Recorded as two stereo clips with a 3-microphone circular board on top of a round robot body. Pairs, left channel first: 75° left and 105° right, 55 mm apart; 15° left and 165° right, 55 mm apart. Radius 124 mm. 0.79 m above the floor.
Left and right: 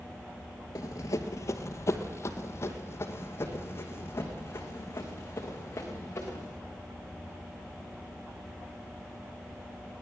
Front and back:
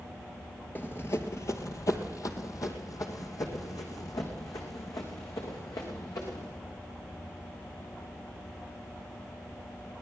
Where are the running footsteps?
70° left, 0.9 m; by 6.5 s 25° left, 6 m.